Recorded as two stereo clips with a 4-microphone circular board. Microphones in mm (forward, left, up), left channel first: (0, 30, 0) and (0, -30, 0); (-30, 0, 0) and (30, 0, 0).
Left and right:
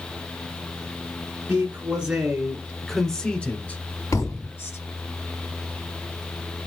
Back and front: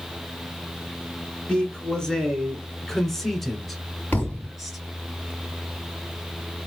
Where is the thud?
115° left, 2.5 m.